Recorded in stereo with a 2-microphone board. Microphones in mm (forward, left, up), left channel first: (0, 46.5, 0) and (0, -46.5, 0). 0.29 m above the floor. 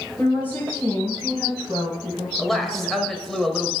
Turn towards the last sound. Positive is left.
turn(degrees=5)  # may be behind; listen again after turning